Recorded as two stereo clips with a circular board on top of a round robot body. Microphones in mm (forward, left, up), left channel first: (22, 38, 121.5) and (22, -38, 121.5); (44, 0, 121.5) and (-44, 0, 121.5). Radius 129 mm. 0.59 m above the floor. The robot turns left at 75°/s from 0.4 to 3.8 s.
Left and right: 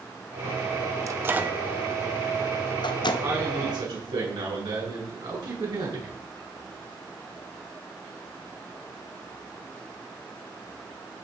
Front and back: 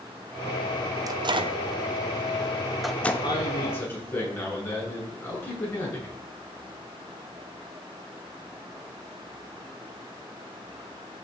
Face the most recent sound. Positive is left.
turn(degrees=-70)